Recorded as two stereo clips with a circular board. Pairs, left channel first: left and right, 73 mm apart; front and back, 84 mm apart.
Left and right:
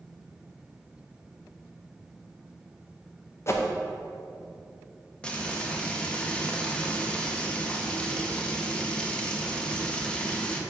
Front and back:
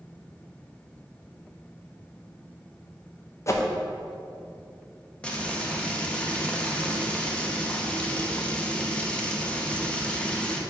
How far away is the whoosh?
About 0.7 m.